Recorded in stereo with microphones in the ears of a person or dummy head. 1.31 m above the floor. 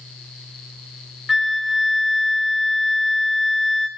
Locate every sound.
1.3 s a flute: centre (ahead or behind), 0.7 m